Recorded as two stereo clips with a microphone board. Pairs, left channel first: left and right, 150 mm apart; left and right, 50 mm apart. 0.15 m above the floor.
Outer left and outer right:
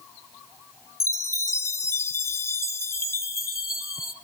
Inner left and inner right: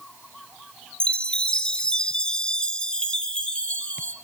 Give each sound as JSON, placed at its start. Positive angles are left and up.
{"t": 1.0, "sound": "a chime", "side_deg": 20, "distance_m": 0.6}